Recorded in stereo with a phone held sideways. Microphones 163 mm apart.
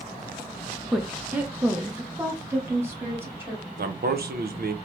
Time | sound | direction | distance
0.9 | a woman speaking | centre (ahead or behind) | 0.6 m
3.8 | a man speaking | 75° right (ahead or behind) | 0.6 m